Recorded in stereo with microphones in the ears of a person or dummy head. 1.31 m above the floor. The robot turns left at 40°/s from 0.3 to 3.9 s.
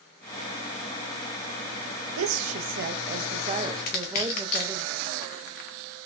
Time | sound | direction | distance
2.2 | a woman speaking | 90° right | 0.6 m
3.9 | crushing | 40° left (ahead or behind) | 0.7 m